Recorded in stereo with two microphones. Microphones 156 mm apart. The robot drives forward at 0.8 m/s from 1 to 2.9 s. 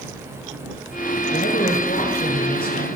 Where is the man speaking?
75° left (ahead or behind), 7.5 m; by 2.9 s 80° left, 7.5 m.